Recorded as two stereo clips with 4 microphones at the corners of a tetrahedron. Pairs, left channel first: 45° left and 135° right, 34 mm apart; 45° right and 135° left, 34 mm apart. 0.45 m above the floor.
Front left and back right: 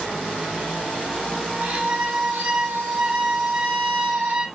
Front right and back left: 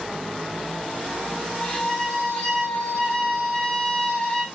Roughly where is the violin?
Right.